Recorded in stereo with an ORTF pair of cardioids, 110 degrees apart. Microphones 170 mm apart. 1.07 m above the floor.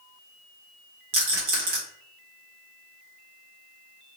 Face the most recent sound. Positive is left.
turn(degrees=-70)